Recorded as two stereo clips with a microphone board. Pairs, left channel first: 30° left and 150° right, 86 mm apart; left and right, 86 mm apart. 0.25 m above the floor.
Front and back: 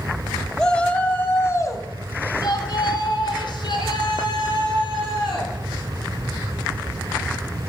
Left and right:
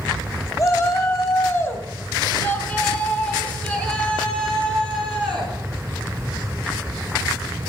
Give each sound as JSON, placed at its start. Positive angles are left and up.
{"t": 0.6, "sound": "a shout", "azimuth_deg": 105, "distance_m": 1.6}